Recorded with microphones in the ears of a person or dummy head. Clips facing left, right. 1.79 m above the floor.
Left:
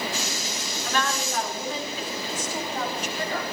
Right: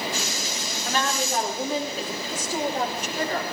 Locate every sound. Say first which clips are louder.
0.8 s a woman speaking: right 2 dB; 20° right (ahead or behind), 3.5 m; by 3.4 s 35° right (ahead or behind), 4.5 m